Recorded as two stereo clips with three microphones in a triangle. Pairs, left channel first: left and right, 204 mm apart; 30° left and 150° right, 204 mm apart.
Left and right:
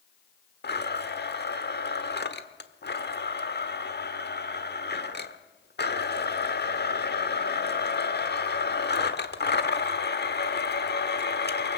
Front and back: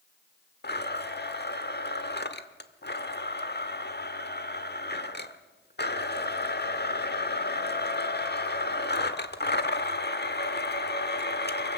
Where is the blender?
60° left, 1.1 m.